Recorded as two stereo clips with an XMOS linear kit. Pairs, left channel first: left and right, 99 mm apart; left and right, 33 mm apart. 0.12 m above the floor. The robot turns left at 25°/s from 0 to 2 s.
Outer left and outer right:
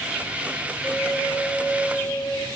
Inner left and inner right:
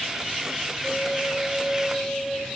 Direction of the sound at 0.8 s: 30° left (ahead or behind).